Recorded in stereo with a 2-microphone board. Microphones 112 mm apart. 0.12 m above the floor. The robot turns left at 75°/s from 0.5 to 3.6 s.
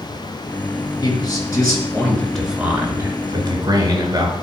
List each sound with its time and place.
1.0 s a man speaking: 105° left, 1.8 m; by 4.3 s 90° right, 1.8 m